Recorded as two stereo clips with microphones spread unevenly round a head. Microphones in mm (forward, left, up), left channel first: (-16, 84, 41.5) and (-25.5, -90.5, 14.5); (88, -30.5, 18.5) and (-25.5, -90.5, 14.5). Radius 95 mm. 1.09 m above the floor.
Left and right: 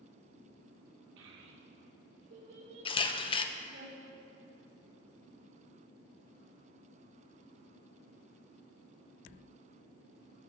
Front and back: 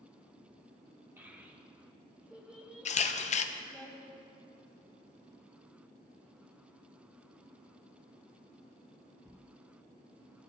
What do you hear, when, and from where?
1.2 s a child speaking: 80° right, 2.5 m; by 3.9 s 65° right, 6 m
2.9 s a camera shutter: 20° left, 0.6 m